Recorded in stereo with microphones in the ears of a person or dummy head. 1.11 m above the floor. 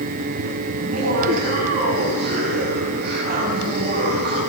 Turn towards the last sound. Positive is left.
turn(degrees=-45)  # may be behind; listen again after turning